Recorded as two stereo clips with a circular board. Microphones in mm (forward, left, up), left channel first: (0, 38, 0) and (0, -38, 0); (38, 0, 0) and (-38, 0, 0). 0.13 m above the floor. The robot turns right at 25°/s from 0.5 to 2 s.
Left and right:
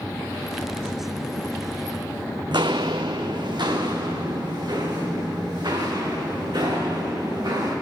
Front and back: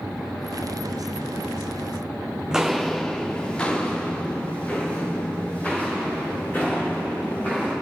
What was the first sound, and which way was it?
Footsteps, 100° right.